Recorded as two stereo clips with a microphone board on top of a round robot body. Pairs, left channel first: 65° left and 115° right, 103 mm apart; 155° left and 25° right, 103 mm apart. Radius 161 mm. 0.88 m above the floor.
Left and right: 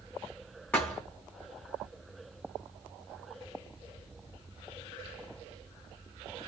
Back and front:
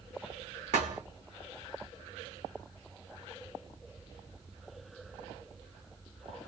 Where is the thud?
10° right, 0.8 m.